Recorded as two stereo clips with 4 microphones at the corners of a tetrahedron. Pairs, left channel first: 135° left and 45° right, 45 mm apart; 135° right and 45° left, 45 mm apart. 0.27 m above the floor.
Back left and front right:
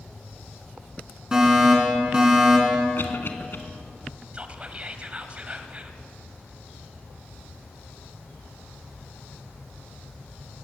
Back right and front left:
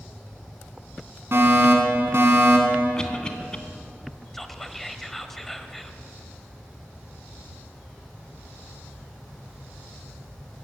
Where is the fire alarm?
25° left, 5 m.